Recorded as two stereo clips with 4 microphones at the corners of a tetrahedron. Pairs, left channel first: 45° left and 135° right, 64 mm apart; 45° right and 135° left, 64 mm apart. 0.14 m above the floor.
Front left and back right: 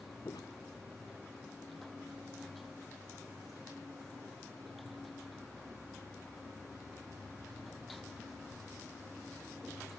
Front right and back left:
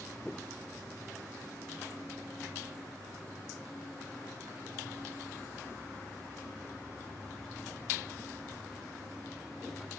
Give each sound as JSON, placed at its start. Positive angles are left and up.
{"t": 0.2, "sound": "footsteps", "azimuth_deg": 35}